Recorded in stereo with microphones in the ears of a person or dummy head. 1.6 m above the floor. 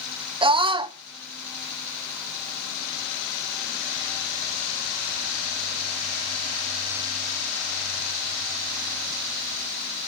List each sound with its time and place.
0.4 s a scream: 30° right (ahead or behind), 0.7 m